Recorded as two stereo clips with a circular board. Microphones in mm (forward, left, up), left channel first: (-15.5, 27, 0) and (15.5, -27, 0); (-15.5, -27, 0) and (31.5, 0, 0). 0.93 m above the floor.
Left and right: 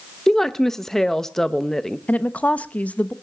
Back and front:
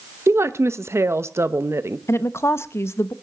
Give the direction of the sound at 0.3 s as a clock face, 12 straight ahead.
11 o'clock.